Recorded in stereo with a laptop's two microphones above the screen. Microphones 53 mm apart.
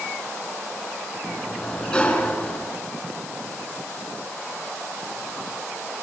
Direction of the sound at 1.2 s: 15° left (ahead or behind).